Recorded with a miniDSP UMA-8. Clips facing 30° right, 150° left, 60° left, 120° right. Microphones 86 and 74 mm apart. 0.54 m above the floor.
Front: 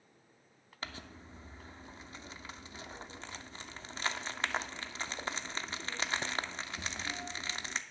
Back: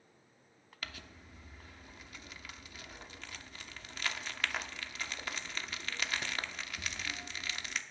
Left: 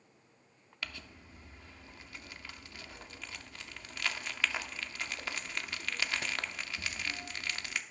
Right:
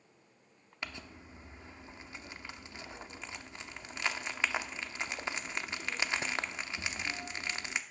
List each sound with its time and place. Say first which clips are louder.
0.8 s crumpling: front 3 dB, right 1 dB; 70° right, 0.6 m